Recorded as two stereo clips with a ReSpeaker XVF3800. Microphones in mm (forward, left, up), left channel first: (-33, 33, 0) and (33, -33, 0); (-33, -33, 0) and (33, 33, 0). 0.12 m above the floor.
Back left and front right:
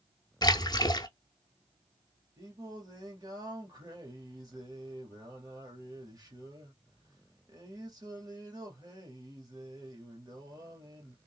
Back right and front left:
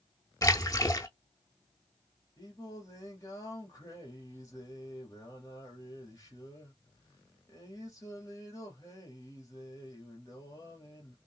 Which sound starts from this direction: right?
Singing, at 2.4 s.